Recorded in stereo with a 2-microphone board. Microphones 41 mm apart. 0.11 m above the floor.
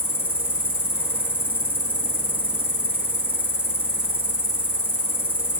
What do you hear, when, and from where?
0.0 s an insect: 35° right (ahead or behind), 4.5 m